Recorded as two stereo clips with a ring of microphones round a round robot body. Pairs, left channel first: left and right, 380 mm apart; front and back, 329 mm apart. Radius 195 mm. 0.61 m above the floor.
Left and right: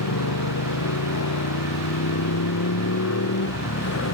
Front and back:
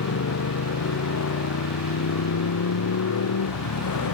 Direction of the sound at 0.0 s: 45° left.